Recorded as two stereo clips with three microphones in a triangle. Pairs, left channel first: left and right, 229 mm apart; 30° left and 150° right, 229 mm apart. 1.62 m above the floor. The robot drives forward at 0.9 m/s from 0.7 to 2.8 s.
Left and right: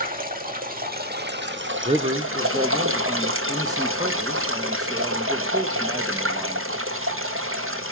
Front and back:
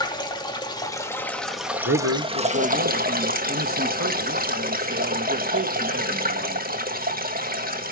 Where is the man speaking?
150° right, 0.9 m; by 6.8 s 165° right, 1.7 m.